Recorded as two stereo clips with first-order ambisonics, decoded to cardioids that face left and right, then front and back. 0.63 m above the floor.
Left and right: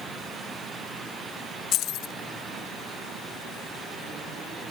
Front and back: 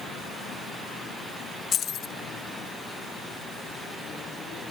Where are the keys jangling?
55° left.